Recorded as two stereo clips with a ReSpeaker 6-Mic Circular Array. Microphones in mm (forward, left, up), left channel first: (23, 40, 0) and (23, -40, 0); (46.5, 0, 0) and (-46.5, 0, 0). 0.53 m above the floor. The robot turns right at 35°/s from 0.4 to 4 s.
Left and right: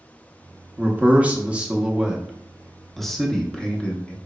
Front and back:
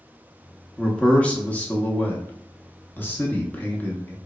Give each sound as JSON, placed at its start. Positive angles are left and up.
{"t": 0.8, "sound": "a man speaking", "azimuth_deg": -70, "distance_m": 0.7}